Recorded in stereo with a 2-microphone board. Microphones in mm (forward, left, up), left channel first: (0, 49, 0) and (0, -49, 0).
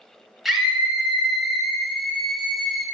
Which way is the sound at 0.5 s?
5° right (ahead or behind).